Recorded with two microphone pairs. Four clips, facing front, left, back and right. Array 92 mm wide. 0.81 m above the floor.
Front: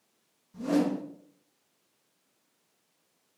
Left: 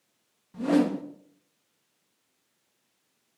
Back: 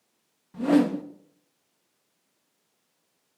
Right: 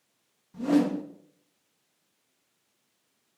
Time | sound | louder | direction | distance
0.5 | a whoosh | even, back 6 dB | 165° left | 1.2 m